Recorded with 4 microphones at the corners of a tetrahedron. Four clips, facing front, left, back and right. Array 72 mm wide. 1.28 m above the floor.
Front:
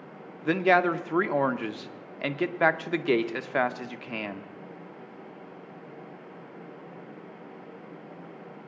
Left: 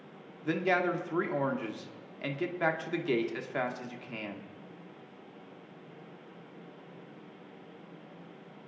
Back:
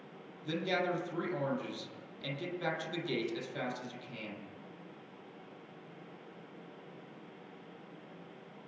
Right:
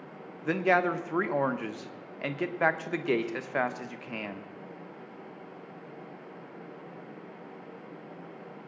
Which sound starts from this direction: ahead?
A man speaking, at 0.5 s.